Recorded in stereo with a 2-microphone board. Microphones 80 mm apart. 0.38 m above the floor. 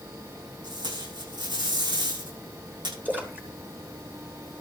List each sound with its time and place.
0.6 s tape being pulled: 65° right (ahead or behind), 8.5 m
3.0 s a splash: 20° right (ahead or behind), 3 m